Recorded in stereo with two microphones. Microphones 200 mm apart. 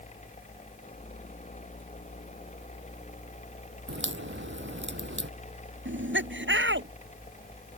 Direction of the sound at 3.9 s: 70° right (ahead or behind).